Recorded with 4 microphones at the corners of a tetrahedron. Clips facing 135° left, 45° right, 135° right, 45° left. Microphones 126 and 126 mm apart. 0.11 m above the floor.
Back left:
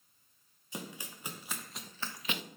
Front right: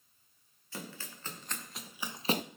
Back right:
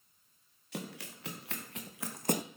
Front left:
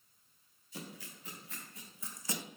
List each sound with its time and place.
0.7 s running footsteps: 150° right, 2.5 m; by 2.4 s 85° right, 0.6 m